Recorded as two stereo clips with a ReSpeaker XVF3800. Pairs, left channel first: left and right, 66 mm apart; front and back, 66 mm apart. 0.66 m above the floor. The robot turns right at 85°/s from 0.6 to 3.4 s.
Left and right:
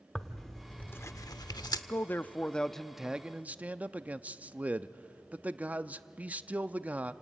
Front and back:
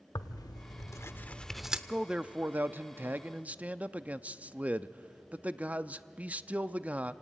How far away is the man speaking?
About 0.6 m.